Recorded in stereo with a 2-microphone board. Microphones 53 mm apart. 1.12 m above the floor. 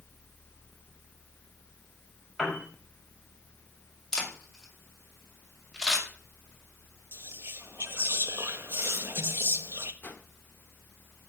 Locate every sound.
2.4 s a piano: 5° left (ahead or behind), 5.5 m
4.1 s a camera shutter: 5° left (ahead or behind), 5.5 m
7.1 s whispering: 50° right (ahead or behind), 1.1 m
10.0 s a whoosh: 35° left (ahead or behind), 1.6 m